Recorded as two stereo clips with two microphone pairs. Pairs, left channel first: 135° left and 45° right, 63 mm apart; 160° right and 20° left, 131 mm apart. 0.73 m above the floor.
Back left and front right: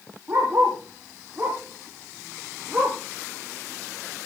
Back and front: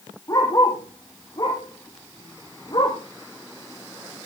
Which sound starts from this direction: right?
A dog barking, at 0.3 s.